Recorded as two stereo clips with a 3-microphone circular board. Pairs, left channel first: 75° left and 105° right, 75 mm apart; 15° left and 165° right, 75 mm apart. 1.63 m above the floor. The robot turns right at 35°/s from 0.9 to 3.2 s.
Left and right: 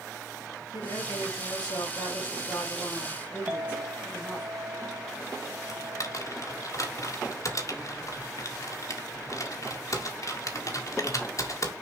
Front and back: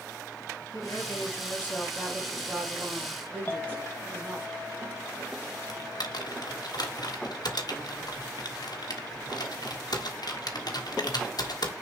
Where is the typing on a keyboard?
35° left, 1.5 m.